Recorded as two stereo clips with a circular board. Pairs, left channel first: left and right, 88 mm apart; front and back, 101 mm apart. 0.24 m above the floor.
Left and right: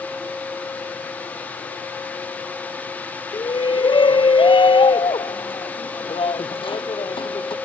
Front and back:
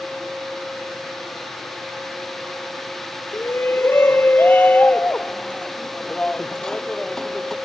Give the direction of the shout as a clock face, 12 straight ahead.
10 o'clock.